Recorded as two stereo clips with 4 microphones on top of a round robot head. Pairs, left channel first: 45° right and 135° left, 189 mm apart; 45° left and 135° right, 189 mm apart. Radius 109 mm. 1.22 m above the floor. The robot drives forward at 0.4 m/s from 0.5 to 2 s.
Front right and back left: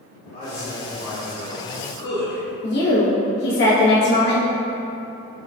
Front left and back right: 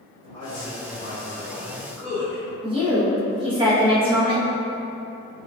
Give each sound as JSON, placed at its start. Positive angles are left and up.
{"t": 0.3, "sound": "a man speaking", "azimuth_deg": -20, "distance_m": 1.6}
{"t": 2.6, "sound": "a woman speaking", "azimuth_deg": -75, "distance_m": 1.4}